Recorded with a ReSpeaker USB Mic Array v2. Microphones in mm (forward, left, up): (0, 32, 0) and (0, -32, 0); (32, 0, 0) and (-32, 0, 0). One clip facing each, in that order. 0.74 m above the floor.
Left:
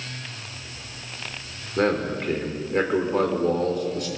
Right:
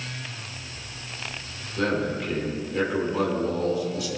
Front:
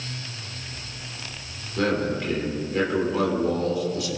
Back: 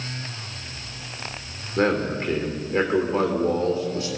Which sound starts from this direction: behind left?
A man speaking, at 1.8 s.